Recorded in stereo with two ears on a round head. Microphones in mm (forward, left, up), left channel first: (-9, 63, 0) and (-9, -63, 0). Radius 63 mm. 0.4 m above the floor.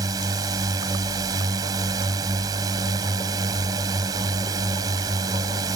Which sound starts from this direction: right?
A drone, at 0.0 s.